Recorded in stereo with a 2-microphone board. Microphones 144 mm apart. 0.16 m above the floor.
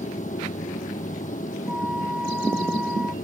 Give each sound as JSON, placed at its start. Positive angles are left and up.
{"t": 0.0, "sound": "an aircraft", "side_deg": 60}
{"t": 1.7, "sound": "a flute", "side_deg": -5}